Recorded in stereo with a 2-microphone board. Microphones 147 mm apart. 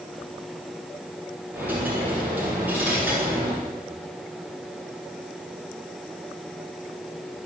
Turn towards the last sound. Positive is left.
turn(degrees=-10)  # may be behind; listen again after turning